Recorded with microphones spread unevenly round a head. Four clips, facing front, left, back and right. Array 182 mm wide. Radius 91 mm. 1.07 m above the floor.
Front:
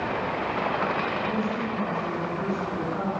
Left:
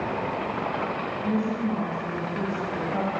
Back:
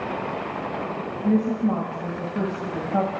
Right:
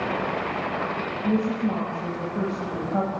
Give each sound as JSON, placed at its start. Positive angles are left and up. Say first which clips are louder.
{"t": 1.2, "sound": "a woman speaking", "louder": "right 3 dB, back 6 dB", "azimuth_deg": -155, "distance_m": 5.5}